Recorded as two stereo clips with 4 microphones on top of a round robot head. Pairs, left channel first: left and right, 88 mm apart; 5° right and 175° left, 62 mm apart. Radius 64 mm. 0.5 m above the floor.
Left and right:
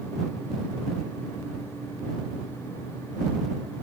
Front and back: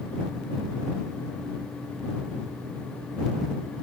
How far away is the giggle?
No giggle in this recording.